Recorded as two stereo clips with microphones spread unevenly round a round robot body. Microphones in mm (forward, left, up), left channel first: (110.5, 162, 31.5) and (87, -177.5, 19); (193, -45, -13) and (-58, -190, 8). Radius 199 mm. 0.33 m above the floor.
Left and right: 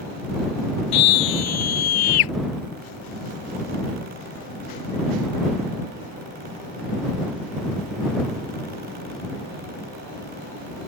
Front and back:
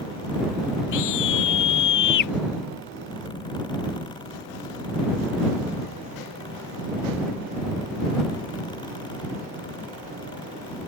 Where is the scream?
75° left.